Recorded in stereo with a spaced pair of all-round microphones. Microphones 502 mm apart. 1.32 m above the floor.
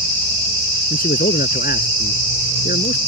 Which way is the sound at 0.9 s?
15° left (ahead or behind).